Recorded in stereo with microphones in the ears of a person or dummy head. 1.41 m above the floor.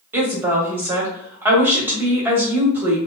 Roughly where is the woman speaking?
Centre.